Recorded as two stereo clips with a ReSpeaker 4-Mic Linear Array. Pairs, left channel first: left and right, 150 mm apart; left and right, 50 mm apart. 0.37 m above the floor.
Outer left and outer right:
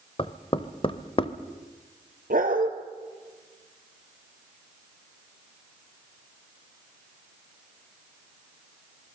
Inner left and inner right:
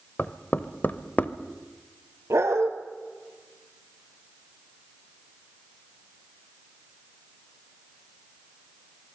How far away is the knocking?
About 0.9 m.